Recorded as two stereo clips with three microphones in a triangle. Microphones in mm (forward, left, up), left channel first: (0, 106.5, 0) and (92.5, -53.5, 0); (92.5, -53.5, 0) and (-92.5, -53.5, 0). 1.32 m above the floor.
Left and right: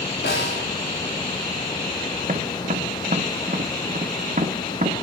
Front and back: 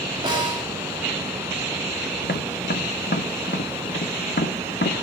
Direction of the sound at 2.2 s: 15° right.